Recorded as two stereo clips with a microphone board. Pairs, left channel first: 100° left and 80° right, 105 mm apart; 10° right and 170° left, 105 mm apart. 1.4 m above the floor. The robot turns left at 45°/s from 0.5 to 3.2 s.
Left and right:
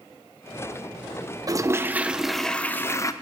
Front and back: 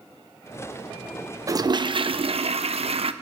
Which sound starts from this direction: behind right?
A toilet flushing, at 1.5 s.